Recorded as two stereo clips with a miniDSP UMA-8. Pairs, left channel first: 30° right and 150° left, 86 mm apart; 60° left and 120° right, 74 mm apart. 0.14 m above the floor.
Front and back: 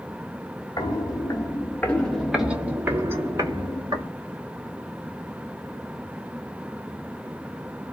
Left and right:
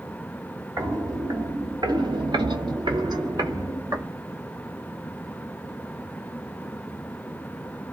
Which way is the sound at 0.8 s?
70° right.